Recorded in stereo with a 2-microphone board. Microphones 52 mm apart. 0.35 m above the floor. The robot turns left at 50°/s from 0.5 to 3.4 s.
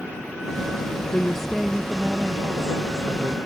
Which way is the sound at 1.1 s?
20° left.